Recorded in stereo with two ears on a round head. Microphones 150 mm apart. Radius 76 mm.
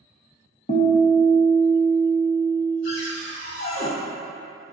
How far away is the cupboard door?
About 0.7 m.